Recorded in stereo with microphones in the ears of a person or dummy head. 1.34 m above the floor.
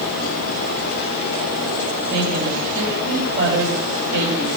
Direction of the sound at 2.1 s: 50° right (ahead or behind).